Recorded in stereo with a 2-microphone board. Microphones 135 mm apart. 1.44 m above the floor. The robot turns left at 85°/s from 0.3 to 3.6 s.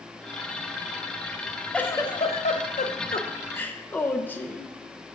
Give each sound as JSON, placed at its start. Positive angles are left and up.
{"t": 1.7, "sound": "a giggle", "azimuth_deg": 175, "distance_m": 0.5}